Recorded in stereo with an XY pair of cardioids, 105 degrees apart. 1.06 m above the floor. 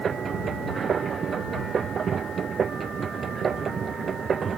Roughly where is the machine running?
Ahead right.